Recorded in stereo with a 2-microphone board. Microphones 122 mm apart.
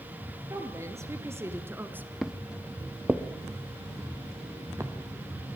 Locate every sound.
0.5 s a woman speaking: 25° right (ahead or behind), 2.5 m; by 2.1 s 15° right (ahead or behind), 1.6 m
2.2 s footsteps: 5° right (ahead or behind), 1.2 m; by 5.6 s 25° right (ahead or behind), 3 m